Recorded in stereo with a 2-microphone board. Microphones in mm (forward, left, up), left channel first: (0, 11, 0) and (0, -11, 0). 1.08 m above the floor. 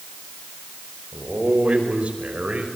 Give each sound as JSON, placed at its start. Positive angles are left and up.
{"t": 1.1, "sound": "a man speaking", "side_deg": -80, "distance_m": 5.5}